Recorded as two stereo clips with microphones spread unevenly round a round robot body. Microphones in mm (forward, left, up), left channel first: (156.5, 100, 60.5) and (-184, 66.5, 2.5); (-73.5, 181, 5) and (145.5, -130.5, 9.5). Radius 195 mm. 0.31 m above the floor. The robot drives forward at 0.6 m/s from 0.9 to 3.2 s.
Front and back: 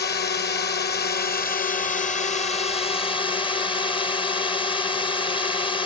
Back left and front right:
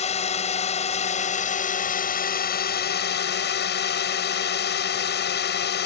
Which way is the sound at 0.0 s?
65° left.